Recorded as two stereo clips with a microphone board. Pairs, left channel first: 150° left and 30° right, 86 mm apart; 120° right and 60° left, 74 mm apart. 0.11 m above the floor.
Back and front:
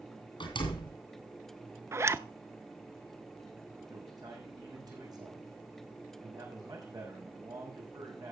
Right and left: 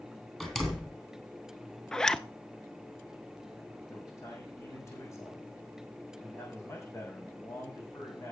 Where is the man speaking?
70° right, 7 m.